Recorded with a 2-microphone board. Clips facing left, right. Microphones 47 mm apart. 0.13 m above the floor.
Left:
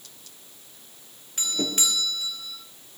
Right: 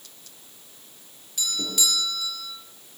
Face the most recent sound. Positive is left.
turn(degrees=40)  # may be behind; listen again after turning